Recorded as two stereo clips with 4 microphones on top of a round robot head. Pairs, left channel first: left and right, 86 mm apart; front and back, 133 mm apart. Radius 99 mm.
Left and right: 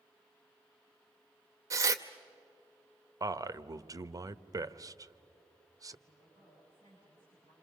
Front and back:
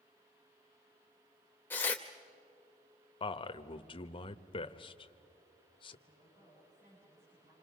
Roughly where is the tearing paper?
Right.